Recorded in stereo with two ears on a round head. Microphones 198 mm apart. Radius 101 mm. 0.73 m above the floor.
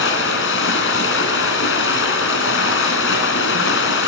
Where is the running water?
65° left (ahead or behind), 3.5 m.